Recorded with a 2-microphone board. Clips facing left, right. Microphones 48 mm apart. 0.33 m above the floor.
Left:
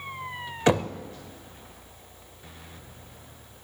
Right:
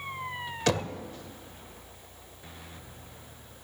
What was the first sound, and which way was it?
Knocking, 25° left (ahead or behind).